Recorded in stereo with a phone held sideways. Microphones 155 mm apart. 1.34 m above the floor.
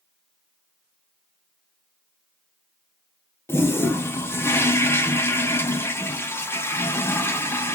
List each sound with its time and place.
3.5 s a toilet flushing: 15° left (ahead or behind), 0.6 m